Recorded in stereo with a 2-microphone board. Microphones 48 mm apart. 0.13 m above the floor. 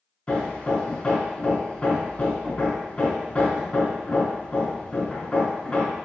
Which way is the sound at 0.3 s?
20° left (ahead or behind).